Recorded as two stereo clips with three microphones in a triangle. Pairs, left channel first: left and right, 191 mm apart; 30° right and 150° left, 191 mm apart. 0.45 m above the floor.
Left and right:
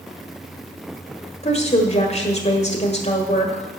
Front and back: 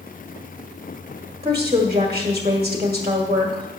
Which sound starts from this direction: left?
A woman speaking, at 1.4 s.